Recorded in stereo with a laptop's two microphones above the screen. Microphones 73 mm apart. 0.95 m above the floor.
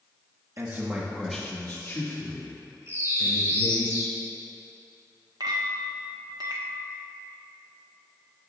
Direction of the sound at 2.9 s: 40° right (ahead or behind).